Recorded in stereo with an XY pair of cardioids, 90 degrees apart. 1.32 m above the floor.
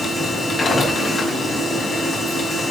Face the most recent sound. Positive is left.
turn(degrees=40)